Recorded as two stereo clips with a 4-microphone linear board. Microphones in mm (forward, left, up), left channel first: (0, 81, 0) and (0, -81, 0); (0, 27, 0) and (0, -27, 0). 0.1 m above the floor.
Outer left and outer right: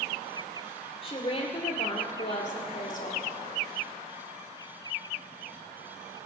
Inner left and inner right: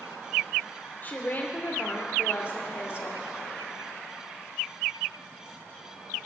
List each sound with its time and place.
1.0 s a woman speaking: 35° left (ahead or behind), 3 m; by 3.2 s 55° left (ahead or behind), 2.5 m